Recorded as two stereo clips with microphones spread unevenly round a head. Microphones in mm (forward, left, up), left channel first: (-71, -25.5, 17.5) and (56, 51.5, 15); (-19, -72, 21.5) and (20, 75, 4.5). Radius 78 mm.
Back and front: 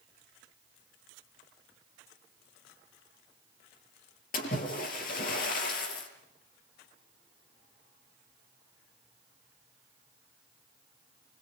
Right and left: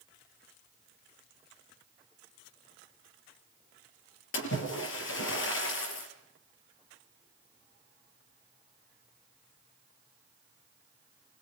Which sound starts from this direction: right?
A splash, at 4.3 s.